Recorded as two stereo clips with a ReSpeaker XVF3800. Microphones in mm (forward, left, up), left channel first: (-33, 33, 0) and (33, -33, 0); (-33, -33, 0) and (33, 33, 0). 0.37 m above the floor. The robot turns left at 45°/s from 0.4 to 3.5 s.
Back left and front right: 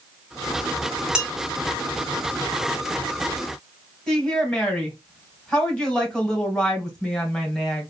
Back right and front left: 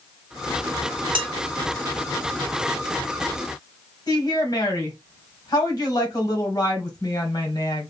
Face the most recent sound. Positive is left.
turn(degrees=-145)